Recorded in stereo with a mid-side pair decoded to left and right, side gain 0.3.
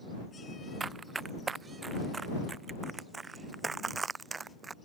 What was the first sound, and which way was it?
Running footsteps, 55° right.